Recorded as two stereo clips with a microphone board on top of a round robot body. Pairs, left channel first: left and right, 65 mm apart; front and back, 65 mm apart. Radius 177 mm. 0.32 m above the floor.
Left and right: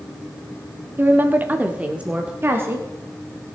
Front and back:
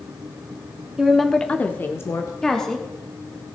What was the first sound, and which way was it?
A woman speaking, 105° right.